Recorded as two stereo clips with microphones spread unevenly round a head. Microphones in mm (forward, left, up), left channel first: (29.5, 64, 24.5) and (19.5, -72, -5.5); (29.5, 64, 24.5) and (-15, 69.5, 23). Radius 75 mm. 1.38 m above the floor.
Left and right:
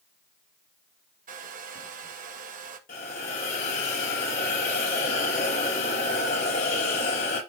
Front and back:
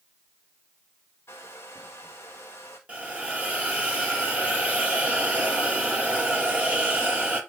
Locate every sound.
1.3 s a hair dryer: 70° right, 1.4 m
2.9 s a hiss: 110° left, 5 m